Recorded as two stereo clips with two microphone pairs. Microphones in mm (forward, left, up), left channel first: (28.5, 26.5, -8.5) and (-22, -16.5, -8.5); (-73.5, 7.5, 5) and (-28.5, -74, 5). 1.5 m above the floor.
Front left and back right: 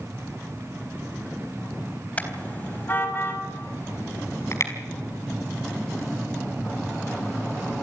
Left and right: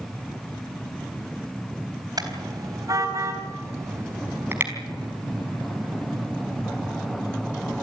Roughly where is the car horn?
Ahead right.